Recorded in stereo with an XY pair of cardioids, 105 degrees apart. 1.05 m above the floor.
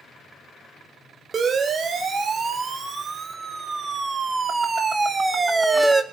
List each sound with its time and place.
1.3 s a siren: 45° right, 4.5 m; by 6.0 s 15° right, 1.8 m